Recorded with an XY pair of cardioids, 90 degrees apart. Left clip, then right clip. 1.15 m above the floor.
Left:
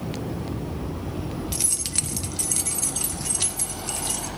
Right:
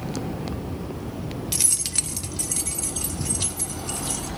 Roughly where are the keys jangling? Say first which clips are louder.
Right 3 dB; ahead right.